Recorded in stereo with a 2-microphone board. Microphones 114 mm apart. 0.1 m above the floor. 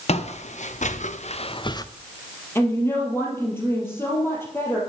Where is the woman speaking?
20° left (ahead or behind), 3 m.